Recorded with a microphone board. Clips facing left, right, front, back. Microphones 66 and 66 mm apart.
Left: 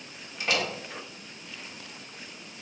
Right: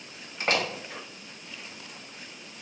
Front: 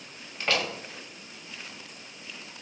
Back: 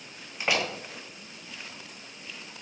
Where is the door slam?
110° right, 0.5 m.